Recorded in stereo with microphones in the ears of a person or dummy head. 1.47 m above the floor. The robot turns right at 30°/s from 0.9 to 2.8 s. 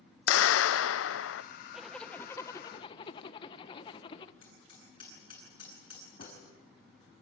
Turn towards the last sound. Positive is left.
turn(degrees=55)  # may be behind; listen again after turning